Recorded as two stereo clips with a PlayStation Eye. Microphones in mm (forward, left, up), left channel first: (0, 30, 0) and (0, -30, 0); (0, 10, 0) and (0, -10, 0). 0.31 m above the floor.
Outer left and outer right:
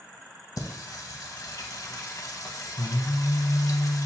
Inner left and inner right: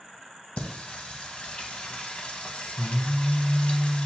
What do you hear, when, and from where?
0.6 s singing: 75° left (ahead or behind), 0.5 m